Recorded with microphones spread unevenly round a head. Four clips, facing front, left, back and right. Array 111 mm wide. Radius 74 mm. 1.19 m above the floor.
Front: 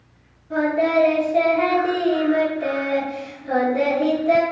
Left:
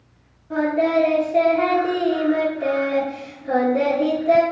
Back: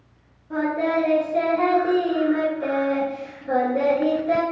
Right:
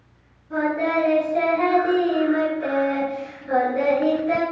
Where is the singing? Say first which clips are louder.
Left 3 dB, front 3 dB; 110° left, 1.3 m.